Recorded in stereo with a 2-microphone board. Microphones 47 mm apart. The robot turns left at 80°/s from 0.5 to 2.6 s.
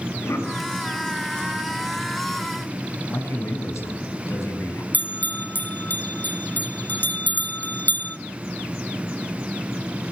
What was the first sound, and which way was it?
A cough, 70° left (ahead or behind).